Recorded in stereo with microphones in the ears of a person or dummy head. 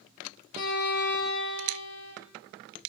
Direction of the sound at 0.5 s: 55° left (ahead or behind).